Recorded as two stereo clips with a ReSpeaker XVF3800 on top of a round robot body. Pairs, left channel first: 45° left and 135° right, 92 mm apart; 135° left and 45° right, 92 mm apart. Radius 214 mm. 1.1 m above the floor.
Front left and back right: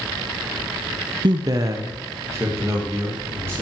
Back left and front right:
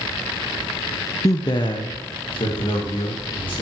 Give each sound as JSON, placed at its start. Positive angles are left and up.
{"t": 1.2, "sound": "a man speaking", "azimuth_deg": -170, "distance_m": 0.5}